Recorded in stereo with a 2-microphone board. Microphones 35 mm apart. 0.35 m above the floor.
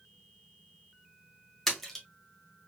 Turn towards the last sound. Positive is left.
turn(degrees=10)  # may be behind; listen again after turning